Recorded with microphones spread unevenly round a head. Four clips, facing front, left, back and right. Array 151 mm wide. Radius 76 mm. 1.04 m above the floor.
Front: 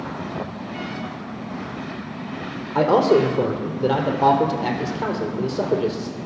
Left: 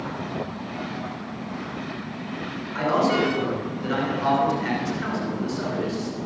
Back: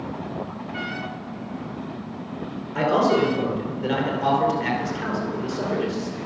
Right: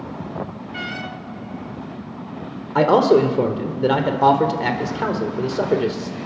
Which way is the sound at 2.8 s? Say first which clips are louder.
Right 8 dB, front 3 dB; 60° right.